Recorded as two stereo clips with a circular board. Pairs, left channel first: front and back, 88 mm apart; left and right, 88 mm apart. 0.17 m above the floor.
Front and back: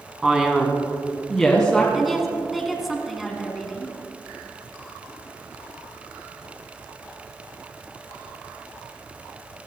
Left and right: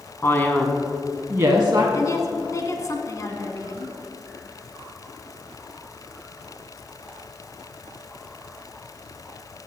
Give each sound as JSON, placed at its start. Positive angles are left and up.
{"t": 0.2, "sound": "a man speaking", "azimuth_deg": 105, "distance_m": 1.6}
{"t": 1.9, "sound": "a woman speaking", "azimuth_deg": 90, "distance_m": 1.5}